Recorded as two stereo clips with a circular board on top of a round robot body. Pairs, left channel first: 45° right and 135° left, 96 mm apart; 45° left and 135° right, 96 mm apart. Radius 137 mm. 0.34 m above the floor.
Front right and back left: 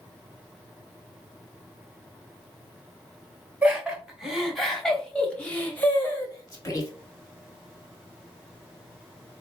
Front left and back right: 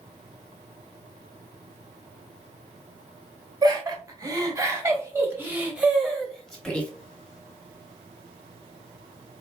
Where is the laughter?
150° right, 1.6 m; by 6.9 s 30° right, 1.4 m.